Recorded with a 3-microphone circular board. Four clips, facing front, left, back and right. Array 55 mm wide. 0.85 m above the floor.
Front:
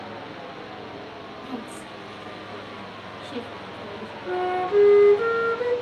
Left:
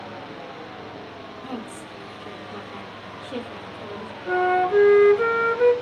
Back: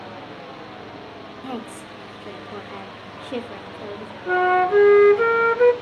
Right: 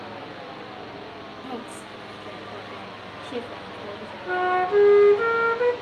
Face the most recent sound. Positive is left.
turn(degrees=180)